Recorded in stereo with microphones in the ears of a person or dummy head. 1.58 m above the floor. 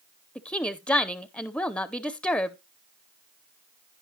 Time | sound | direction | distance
0.3 | a woman speaking | 5° left (ahead or behind) | 0.6 m